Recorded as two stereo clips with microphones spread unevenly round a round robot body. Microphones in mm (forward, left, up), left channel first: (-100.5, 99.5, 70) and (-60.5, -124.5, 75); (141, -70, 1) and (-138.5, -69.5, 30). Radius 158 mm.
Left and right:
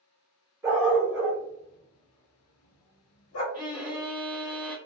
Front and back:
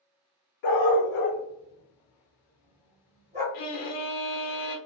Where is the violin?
5° left, 0.8 m.